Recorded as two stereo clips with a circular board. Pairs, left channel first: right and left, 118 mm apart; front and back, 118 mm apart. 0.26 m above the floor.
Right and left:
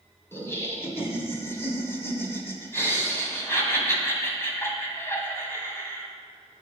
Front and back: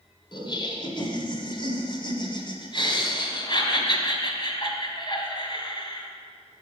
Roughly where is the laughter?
Ahead right.